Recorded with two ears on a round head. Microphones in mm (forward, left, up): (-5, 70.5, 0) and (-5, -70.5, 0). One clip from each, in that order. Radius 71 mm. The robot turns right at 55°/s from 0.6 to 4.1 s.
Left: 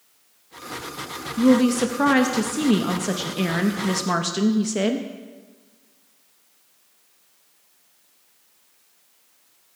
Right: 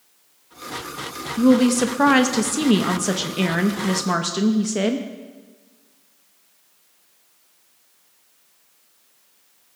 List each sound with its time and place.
1.4 s a woman speaking: 10° right (ahead or behind), 0.6 m; by 5.1 s centre (ahead or behind), 0.6 m